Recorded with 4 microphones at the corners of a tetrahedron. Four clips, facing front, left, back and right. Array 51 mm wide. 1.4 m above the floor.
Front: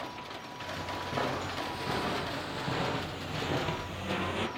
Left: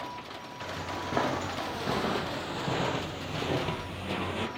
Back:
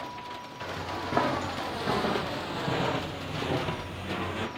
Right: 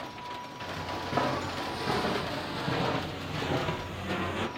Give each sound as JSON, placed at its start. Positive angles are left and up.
{"t": 0.6, "sound": "footsteps", "azimuth_deg": 160, "distance_m": 2.5}